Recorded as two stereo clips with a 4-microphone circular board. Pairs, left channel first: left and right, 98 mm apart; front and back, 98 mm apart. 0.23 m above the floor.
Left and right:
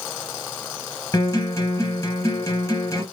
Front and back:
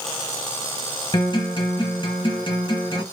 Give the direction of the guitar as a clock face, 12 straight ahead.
11 o'clock.